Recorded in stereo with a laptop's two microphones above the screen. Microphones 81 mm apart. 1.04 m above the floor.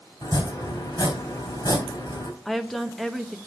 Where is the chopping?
60° left (ahead or behind), 3 m.